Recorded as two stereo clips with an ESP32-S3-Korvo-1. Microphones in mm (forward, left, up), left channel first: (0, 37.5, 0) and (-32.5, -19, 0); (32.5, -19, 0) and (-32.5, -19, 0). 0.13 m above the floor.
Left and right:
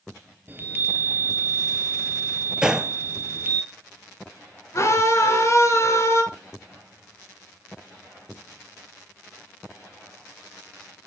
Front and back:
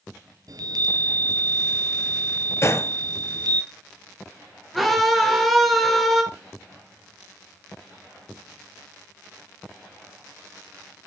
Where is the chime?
Straight behind, 1.4 m.